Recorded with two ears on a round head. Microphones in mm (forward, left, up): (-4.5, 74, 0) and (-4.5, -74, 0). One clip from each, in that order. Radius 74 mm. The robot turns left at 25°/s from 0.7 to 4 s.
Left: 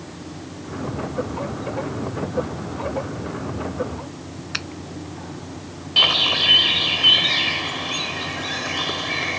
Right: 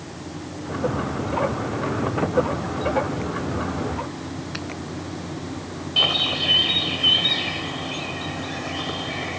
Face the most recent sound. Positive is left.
turn(degrees=50)  # may be behind; listen again after turning